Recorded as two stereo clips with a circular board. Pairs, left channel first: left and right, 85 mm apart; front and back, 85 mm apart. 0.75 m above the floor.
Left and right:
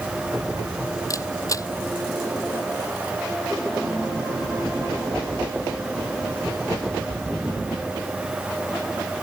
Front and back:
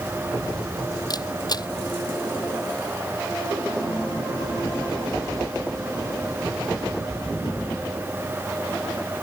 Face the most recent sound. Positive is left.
turn(degrees=40)